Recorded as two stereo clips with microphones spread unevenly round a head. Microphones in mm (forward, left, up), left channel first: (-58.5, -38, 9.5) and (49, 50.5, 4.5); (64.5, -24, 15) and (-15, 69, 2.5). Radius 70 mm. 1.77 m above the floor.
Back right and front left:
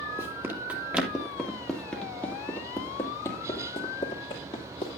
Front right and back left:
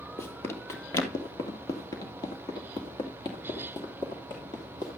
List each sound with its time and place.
0.2 s running footsteps: 15° right, 2.0 m; by 5.0 s 100° right, 3 m